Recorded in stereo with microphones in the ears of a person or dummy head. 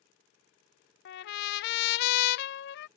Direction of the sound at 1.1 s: 55° left (ahead or behind).